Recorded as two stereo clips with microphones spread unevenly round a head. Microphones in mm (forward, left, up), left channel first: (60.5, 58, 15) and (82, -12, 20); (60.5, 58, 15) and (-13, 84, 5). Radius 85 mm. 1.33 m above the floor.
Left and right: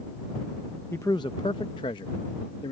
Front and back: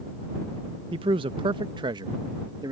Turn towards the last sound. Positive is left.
turn(degrees=125)